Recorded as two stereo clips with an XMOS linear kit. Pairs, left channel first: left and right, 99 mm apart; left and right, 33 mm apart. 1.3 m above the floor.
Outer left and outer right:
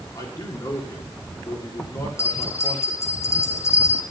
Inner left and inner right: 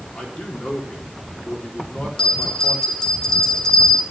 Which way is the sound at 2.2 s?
30° left (ahead or behind).